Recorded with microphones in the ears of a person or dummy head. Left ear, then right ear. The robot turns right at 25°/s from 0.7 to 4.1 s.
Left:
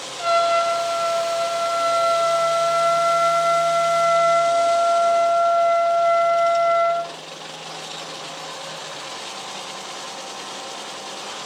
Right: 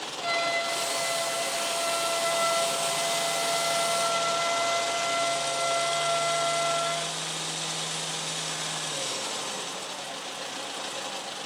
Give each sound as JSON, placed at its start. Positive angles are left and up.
{"t": 0.2, "sound": "a trumpet", "azimuth_deg": 45, "distance_m": 1.7}